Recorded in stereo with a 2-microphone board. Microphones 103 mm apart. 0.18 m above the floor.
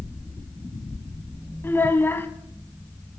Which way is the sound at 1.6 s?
20° left (ahead or behind).